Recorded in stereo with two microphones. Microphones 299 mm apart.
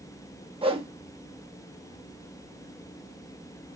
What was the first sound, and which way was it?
A whoosh, 20° right (ahead or behind).